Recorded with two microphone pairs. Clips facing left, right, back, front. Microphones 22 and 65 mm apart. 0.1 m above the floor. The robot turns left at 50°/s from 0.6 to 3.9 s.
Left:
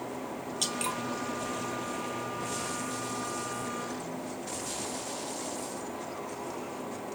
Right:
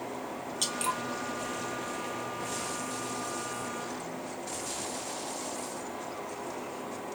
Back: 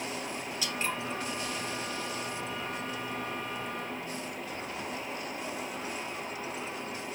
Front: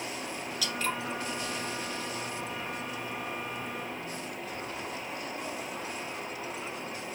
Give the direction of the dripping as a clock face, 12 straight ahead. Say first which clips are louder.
Right 1 dB, front 2 dB; 6 o'clock.